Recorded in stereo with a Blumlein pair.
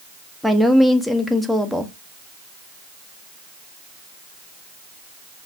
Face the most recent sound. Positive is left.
turn(degrees=0)